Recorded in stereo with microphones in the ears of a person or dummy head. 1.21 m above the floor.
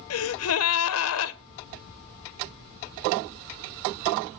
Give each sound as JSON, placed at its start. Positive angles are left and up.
{"t": 0.1, "sound": "a gasp", "side_deg": 70, "distance_m": 0.6}